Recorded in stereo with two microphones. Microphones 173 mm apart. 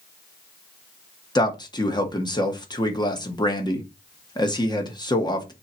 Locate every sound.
1.4 s a man speaking: 25° left (ahead or behind), 1.6 m